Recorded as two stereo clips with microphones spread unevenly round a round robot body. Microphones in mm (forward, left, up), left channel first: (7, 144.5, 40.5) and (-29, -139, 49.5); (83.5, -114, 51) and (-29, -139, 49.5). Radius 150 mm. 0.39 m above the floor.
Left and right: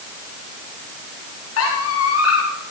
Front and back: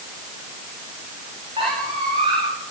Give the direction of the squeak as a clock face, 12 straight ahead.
8 o'clock.